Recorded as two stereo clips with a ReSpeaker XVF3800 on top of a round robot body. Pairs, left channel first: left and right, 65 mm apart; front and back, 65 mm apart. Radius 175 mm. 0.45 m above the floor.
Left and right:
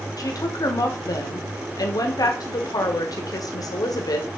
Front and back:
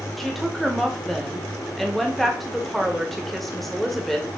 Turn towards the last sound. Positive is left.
turn(degrees=85)